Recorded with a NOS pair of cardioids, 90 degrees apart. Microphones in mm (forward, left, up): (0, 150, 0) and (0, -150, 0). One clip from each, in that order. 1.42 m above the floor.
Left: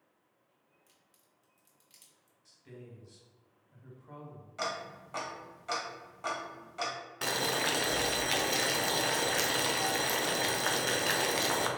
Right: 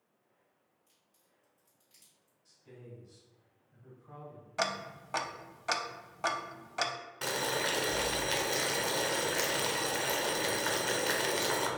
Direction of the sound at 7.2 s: 10° left.